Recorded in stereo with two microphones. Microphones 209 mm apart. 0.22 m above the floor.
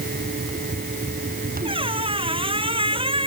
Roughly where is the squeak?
Right.